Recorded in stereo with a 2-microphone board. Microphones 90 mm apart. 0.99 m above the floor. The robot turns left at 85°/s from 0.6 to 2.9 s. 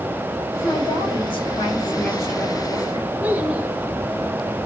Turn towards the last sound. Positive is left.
turn(degrees=-15)  # may be behind; listen again after turning